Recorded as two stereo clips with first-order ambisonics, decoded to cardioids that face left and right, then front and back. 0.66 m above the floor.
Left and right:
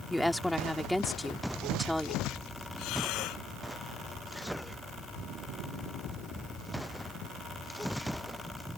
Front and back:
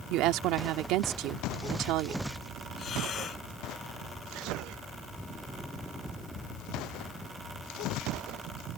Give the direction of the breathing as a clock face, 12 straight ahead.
10 o'clock.